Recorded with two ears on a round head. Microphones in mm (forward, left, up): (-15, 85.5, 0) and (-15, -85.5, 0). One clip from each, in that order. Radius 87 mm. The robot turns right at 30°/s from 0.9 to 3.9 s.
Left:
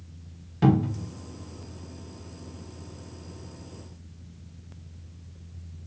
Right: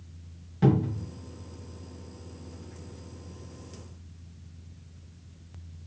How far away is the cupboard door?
About 0.8 m.